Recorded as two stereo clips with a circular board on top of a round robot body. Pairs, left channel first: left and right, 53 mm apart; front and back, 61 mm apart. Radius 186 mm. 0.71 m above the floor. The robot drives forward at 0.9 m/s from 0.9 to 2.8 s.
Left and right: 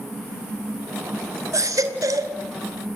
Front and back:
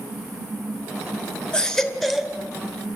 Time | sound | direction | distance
1.5 | a baby crying | 75° right | 2.5 m